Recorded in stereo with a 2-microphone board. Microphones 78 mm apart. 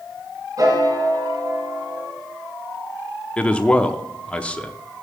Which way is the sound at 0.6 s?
50° right (ahead or behind).